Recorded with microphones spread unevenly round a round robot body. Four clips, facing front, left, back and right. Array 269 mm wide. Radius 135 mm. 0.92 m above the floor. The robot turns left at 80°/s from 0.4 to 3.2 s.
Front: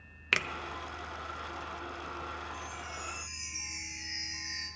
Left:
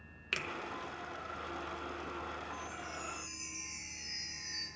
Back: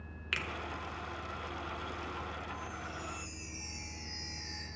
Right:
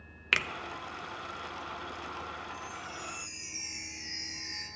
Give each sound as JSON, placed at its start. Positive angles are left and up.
{"t": 0.3, "sound": "a finger snap", "azimuth_deg": -35, "distance_m": 0.7}
{"t": 2.5, "sound": "a chime", "azimuth_deg": 30, "distance_m": 4.0}